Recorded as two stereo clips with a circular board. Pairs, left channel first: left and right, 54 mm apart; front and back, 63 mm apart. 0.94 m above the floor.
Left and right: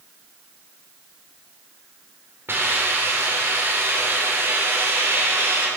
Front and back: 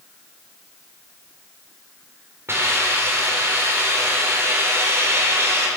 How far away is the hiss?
About 3 m.